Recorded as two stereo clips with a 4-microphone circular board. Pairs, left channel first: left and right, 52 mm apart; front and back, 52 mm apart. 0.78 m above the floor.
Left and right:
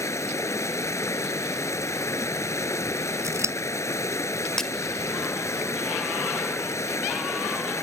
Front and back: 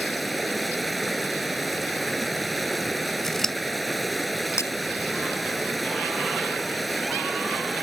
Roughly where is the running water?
Left.